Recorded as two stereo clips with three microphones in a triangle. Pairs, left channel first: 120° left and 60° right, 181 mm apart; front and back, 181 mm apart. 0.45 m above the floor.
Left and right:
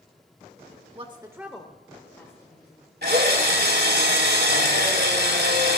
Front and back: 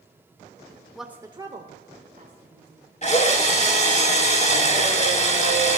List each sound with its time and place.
0.9 s a woman speaking: 90° right, 1.2 m; by 4.0 s straight behind, 4.5 m
3.0 s a drill: 50° right, 2.5 m